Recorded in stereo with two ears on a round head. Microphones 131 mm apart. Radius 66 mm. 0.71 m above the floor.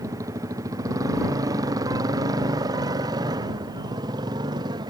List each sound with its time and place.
0.0 s a motorcycle: 25° right (ahead or behind); by 4.9 s 30° right (ahead or behind)